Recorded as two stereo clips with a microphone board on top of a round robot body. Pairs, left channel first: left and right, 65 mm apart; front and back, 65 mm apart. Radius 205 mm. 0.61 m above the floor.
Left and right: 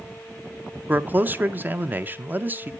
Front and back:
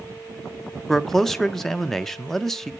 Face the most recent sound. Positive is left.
turn(degrees=-80)